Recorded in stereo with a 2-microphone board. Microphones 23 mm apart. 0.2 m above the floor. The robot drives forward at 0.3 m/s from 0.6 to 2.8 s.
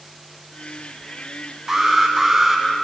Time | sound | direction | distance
1.7 | an alarm | 25° right (ahead or behind) | 1.7 m